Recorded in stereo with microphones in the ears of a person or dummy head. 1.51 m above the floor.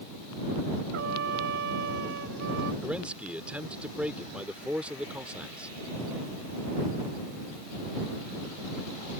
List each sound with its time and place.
0.9 s a trumpet: 60° right (ahead or behind)
2.8 s a man speaking: 10° right (ahead or behind)